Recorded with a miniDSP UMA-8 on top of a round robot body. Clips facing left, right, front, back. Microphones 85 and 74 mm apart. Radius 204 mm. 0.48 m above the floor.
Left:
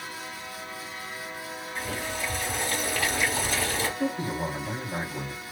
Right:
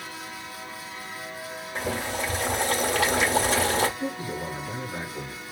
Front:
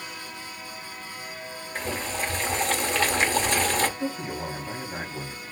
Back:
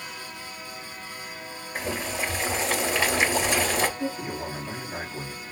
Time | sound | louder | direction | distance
1.8 | boiling | right 4 dB, back 1 dB | 100° right | 2.5 m
4.0 | a man speaking | left 2 dB, even | 95° left | 2.5 m